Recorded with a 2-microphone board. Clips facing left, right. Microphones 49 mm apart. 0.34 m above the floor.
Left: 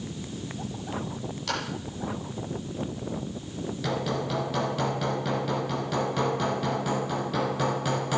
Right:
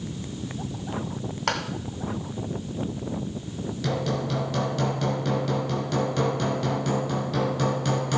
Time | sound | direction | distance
1.5 | a clap | 60° right (ahead or behind) | 2 m
3.8 | hammering | 5° left (ahead or behind) | 2.5 m